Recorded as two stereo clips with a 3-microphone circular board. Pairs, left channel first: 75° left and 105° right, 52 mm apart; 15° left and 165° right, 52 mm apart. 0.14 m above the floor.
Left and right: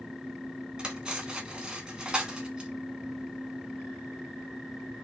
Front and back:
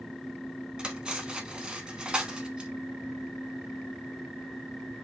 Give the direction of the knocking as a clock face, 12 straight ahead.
I don't hear knocking.